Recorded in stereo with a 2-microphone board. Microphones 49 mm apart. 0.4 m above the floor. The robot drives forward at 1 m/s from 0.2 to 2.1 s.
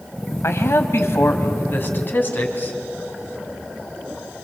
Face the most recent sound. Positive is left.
turn(degrees=40)  # may be behind; listen again after turning